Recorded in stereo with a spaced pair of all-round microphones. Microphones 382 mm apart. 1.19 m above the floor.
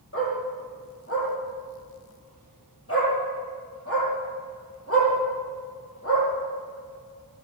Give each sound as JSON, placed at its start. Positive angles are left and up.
{"t": 0.1, "sound": "a dog barking", "side_deg": 40, "distance_m": 9.0}